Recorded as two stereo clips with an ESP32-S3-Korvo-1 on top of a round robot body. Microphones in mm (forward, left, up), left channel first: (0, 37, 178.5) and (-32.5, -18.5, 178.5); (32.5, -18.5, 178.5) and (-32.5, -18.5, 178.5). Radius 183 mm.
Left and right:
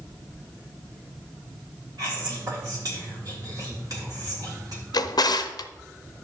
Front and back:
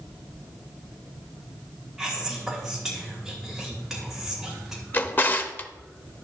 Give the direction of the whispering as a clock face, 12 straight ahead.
3 o'clock.